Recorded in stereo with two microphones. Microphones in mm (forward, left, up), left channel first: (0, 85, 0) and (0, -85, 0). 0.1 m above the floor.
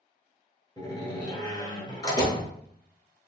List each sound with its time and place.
0.8 s a door slam: 25° left (ahead or behind), 1.2 m